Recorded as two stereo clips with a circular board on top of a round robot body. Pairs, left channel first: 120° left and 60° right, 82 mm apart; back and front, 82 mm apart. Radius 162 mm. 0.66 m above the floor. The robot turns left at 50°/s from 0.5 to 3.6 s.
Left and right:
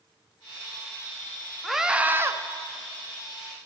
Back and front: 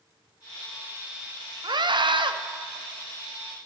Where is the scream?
30° left, 1.3 m; by 2.3 s 5° right, 1.3 m.